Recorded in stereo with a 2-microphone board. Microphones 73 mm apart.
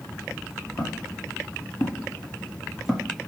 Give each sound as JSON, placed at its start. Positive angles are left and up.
{"t": 0.8, "sound": "footsteps", "side_deg": 55, "distance_m": 1.5}